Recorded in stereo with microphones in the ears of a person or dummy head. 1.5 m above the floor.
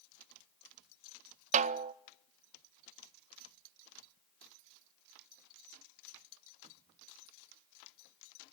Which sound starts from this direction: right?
A snare drum, at 1.5 s.